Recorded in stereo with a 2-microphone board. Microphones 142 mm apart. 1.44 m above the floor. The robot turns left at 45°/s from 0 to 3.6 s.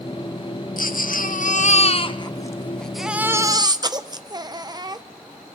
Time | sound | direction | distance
0.8 | a baby crying | 100° left | 0.7 m